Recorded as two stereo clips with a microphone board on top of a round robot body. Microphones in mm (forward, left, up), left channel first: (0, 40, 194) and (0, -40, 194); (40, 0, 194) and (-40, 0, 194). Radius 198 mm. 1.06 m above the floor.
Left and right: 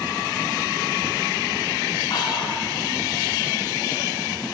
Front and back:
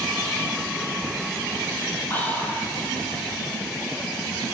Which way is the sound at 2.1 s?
70° left.